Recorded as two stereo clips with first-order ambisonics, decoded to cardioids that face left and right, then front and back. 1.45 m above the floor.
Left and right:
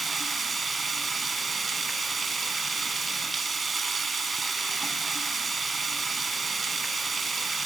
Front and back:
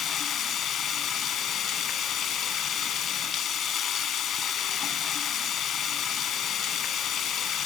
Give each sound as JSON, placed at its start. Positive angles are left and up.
{"t": 0.0, "sound": "running water", "azimuth_deg": -25, "distance_m": 1.6}